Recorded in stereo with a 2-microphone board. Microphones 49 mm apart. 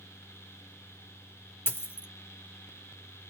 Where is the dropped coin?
45° left (ahead or behind), 0.6 m.